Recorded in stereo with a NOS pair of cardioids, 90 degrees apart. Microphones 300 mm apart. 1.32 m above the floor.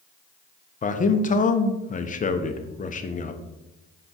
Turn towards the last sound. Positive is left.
turn(degrees=25)